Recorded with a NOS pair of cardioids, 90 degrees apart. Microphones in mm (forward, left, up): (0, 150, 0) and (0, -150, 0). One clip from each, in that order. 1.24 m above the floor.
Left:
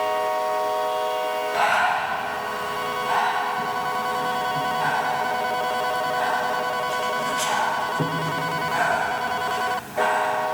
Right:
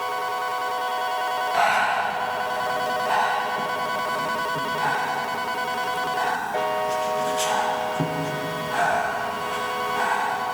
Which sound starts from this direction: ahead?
Breathing, at 1.5 s.